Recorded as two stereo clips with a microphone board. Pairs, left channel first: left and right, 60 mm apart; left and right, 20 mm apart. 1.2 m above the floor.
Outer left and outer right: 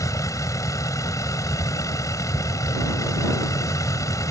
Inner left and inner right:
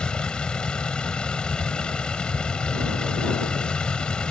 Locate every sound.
0.0 s a vehicle: 75° left (ahead or behind)